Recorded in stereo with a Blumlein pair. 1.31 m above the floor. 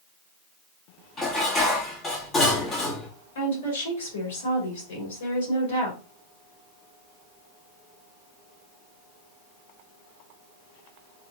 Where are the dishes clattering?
25° left, 1.6 m.